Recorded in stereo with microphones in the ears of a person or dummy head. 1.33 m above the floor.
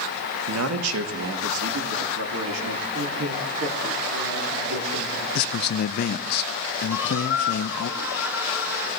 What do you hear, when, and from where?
0.5 s a man speaking: 85° right, 1.3 m
2.9 s a man speaking: 70° right (ahead or behind), 2.5 m
5.3 s a man speaking: 55° left (ahead or behind), 0.5 m
6.9 s a squeak: 15° right (ahead or behind), 5 m